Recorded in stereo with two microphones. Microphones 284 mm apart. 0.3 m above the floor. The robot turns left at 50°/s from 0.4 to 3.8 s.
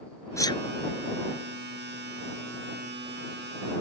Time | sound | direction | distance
0.4 | a sneeze | 10° left (ahead or behind) | ?